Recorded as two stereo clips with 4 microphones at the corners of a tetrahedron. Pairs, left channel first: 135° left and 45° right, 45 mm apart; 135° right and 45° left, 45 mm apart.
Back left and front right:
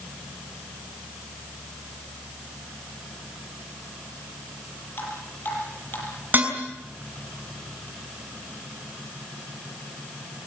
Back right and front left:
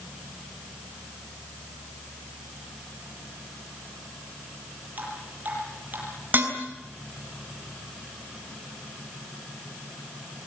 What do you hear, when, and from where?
5.0 s dripping: 95° left, 8.5 m
6.3 s dishes clattering: 5° left, 6.5 m